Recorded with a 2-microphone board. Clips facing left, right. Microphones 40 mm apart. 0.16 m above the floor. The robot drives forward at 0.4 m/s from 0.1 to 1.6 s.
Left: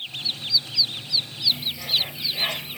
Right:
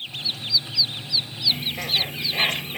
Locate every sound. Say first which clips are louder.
1.5 s a bird: right 1 dB; 55° right (ahead or behind), 1.9 m